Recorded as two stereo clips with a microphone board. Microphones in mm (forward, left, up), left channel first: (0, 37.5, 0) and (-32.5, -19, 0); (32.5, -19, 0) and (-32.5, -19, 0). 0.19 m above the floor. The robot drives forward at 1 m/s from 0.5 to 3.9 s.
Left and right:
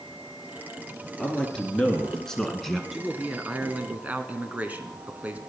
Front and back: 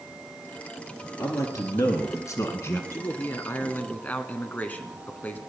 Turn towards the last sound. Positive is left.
turn(degrees=-55)